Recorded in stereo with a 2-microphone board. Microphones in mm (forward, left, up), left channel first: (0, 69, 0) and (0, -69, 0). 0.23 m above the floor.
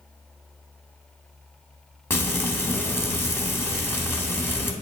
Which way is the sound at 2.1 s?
15° left (ahead or behind).